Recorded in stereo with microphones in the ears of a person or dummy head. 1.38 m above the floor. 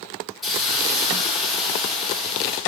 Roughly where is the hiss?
Centre.